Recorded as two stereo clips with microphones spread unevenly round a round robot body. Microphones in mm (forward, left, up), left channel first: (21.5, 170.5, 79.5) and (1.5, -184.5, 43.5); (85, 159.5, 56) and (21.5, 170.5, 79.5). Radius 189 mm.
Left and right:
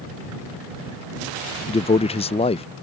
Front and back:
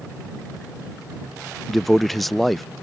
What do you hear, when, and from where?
1.7 s a man speaking: 20° left